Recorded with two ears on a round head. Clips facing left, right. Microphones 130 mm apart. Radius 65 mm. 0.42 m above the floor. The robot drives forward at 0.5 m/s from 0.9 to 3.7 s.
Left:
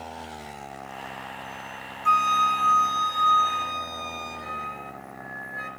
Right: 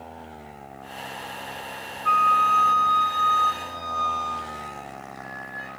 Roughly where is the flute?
Left.